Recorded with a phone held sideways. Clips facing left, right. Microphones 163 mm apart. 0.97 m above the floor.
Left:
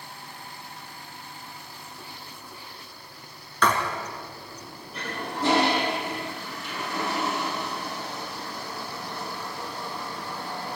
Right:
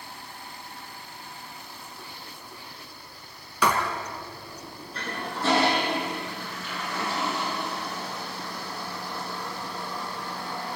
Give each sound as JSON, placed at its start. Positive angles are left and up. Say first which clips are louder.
{"t": 3.6, "sound": "writing", "louder": "even", "side_deg": -10, "distance_m": 4.0}
{"t": 4.9, "sound": "a toilet flushing", "louder": "left 2 dB", "side_deg": 20, "distance_m": 6.5}